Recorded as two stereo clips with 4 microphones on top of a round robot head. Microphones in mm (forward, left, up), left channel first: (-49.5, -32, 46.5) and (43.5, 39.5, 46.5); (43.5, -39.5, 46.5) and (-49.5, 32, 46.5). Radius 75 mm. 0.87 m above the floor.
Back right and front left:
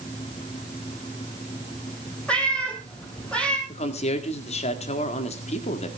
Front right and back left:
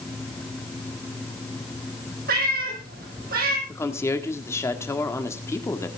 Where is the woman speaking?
105° right, 1.8 m.